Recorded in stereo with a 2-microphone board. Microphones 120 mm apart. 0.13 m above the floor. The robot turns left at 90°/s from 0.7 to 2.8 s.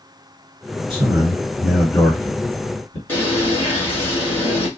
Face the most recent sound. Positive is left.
turn(degrees=15)  # may be behind; listen again after turning